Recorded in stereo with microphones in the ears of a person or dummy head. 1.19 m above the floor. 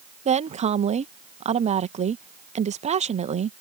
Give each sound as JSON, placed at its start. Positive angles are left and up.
{"t": 0.2, "sound": "a woman speaking", "side_deg": -35}